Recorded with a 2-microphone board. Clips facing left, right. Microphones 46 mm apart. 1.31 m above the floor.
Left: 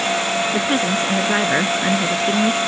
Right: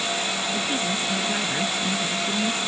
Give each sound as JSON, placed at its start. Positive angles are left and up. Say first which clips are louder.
{"t": 0.5, "sound": "a woman speaking", "louder": "left 7 dB", "side_deg": 50}